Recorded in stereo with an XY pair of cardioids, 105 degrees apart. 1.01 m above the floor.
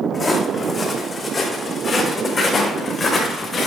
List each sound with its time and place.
0.1 s footsteps: 35° left, 3.5 m; by 3.7 s 45° left, 5.5 m